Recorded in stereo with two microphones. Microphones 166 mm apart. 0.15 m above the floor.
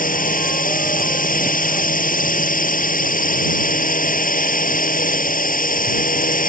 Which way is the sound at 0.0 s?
60° left (ahead or behind).